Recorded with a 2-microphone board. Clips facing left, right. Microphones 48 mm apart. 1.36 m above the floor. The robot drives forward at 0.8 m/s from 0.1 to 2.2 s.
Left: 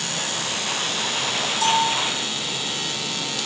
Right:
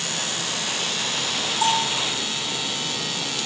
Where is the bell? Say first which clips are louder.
Left 2 dB; 20° right (ahead or behind), 3.5 m.